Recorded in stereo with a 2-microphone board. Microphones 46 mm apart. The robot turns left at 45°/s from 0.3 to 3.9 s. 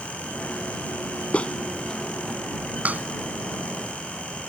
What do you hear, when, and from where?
1.3 s a clap: 30° left (ahead or behind); by 4.5 s 75° right (ahead or behind)